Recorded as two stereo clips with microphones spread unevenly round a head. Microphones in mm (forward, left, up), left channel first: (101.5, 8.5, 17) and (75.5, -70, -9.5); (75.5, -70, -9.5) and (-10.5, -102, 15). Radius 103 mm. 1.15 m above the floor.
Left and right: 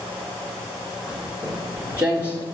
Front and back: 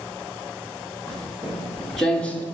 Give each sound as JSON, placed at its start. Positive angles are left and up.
{"t": 1.1, "sound": "footsteps", "azimuth_deg": 150, "distance_m": 1.8}